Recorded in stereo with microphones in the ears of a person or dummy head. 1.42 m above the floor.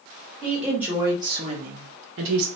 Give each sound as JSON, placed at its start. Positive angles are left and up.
{"t": 0.4, "sound": "a woman speaking", "side_deg": 0, "distance_m": 1.4}